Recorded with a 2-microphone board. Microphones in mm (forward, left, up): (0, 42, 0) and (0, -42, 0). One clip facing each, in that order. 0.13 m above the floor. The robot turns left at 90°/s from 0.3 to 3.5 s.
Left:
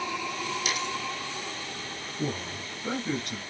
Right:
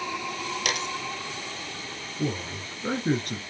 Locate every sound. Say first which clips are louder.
0.7 s a dropped coin: right 3 dB; 70° right (ahead or behind), 0.9 m; by 1.0 s 55° right (ahead or behind), 0.9 m
2.2 s a man speaking: right 3 dB; 5° right, 1.6 m; by 3.4 s 115° right, 1.6 m